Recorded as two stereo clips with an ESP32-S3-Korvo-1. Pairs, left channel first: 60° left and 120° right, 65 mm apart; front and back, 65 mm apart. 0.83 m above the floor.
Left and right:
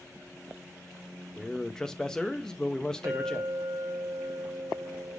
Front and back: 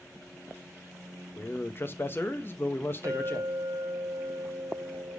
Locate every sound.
1.4 s a man speaking: 15° right, 0.6 m
3.0 s a clink: 145° right, 1.4 m